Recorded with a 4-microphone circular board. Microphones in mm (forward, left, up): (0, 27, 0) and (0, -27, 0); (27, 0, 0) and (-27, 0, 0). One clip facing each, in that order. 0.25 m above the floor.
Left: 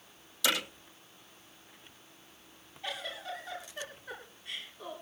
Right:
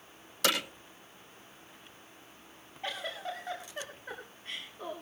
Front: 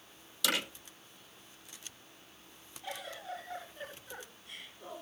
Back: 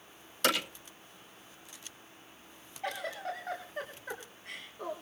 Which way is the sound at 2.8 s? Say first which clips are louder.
Right 2 dB, back 6 dB; 145° right.